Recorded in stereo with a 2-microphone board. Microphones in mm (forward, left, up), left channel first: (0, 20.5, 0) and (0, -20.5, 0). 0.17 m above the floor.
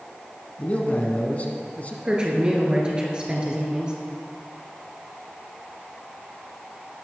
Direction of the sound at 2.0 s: 25° right (ahead or behind).